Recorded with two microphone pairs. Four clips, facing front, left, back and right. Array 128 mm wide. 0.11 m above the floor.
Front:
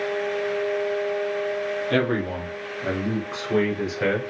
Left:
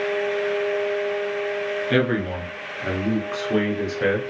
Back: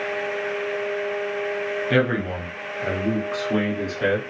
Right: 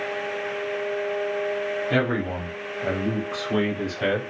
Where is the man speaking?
145° left, 1.9 m; by 4.3 s 55° left, 1.8 m.